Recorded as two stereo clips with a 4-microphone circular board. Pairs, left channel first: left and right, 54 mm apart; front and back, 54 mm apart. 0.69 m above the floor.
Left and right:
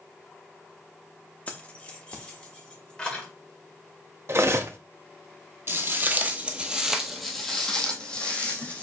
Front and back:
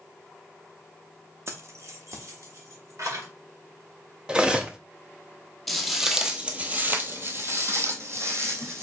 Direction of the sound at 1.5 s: 150° left.